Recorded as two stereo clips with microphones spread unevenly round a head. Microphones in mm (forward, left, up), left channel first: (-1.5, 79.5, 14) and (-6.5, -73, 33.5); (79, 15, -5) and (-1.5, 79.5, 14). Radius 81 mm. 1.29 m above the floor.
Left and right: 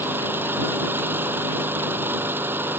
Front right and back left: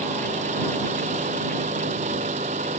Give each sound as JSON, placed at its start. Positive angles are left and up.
{"t": 0.0, "sound": "an engine running", "azimuth_deg": -170}